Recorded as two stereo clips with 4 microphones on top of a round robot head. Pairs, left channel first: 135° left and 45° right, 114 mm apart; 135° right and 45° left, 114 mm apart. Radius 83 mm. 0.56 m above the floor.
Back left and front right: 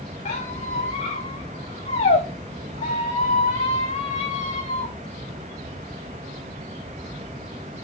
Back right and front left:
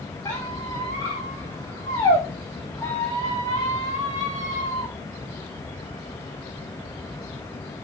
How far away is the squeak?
About 4.5 m.